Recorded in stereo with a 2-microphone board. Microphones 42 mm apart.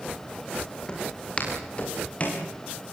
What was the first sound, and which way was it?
Footsteps, 25° left (ahead or behind).